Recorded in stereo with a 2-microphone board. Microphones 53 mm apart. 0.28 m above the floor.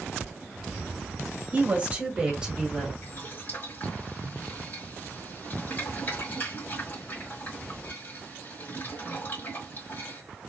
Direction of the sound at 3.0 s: 40° left (ahead or behind).